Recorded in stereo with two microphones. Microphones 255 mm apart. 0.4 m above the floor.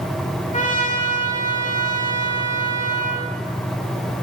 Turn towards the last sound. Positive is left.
turn(degrees=30)  # may be behind; listen again after turning